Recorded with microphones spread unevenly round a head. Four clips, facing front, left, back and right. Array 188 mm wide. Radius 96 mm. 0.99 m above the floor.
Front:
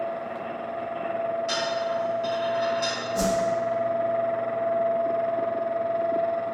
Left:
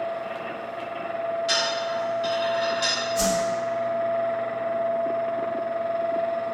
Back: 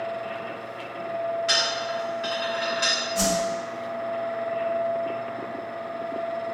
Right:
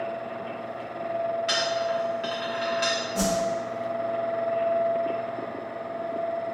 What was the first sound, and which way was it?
A dropped coin, 105° right.